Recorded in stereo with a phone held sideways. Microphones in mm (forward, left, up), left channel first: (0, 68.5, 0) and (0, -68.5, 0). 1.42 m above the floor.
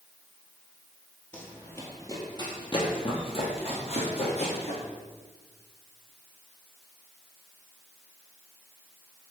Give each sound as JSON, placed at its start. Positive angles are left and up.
{"t": 1.3, "sound": "running footsteps", "side_deg": 10, "distance_m": 1.5}